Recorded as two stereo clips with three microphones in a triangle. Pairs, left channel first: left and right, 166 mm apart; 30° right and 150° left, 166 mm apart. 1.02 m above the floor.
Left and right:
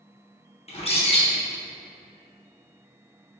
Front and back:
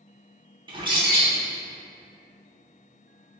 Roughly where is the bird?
Left.